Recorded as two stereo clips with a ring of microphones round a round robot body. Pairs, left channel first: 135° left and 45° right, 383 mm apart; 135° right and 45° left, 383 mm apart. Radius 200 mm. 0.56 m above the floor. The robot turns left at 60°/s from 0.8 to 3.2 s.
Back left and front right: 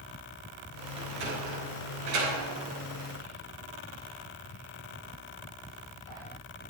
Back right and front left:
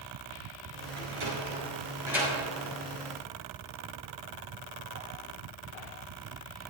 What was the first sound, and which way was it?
A sliding door, 30° left.